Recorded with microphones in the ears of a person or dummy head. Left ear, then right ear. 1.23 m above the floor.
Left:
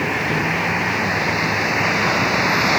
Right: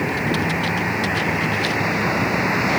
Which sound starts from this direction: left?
A vehicle, at 0.0 s.